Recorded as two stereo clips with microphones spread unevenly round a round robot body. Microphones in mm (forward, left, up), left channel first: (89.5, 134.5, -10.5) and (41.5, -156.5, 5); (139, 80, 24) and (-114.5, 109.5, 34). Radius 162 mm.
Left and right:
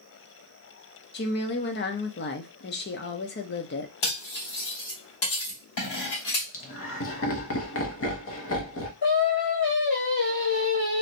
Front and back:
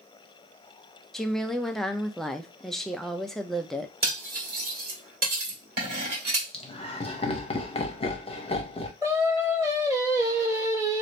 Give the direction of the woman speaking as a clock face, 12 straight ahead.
9 o'clock.